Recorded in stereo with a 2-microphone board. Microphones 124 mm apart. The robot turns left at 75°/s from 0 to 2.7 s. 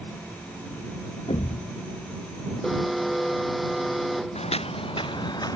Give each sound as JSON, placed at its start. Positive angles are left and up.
{"t": 1.3, "sound": "a thud", "azimuth_deg": 55}
{"t": 2.6, "sound": "an alarm", "side_deg": 5}
{"t": 4.3, "sound": "footsteps", "side_deg": 60}